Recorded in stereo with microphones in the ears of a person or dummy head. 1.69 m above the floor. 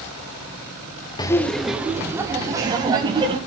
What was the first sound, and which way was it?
Laughter, 20° left (ahead or behind).